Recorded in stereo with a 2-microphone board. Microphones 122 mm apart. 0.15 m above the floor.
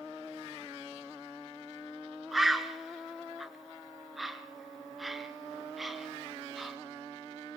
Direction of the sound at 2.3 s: Centre (ahead or behind).